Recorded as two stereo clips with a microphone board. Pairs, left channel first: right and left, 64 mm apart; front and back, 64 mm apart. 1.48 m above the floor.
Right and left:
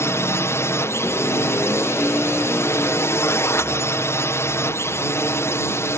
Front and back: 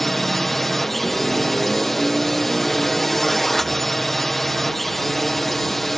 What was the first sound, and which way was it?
A drone, 85° right.